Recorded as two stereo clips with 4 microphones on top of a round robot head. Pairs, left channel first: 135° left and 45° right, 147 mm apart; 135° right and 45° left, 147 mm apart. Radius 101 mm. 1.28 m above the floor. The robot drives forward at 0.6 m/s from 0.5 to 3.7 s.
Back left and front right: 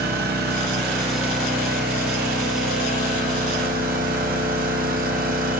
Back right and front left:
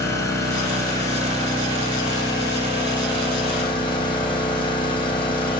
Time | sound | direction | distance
0.0 | an engine running | 65° right | 8 m